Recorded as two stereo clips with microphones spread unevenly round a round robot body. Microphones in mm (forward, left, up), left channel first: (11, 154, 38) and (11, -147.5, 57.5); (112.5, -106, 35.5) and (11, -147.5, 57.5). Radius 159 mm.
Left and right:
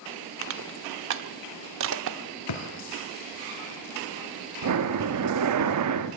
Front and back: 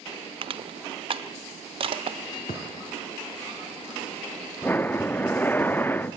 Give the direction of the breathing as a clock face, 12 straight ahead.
2 o'clock.